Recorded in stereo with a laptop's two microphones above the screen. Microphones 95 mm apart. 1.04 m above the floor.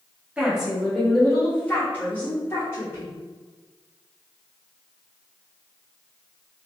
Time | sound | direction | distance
0.4 | a woman speaking | 10° right (ahead or behind) | 0.8 m